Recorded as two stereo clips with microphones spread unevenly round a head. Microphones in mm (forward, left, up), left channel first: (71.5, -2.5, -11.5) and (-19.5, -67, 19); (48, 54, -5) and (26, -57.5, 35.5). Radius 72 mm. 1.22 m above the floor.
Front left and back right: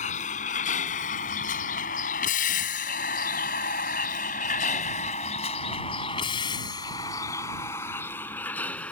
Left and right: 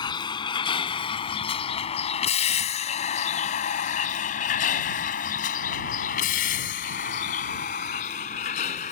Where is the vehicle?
30° left; by 8.9 s 120° left.